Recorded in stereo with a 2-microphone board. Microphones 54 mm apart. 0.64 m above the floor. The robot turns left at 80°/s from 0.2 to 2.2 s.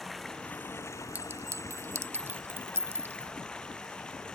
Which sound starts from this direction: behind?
Running water, at 0.0 s.